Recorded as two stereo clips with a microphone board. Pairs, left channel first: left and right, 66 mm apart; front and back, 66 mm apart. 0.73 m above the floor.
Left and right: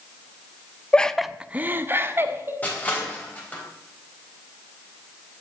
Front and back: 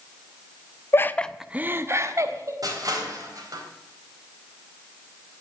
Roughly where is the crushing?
Behind left.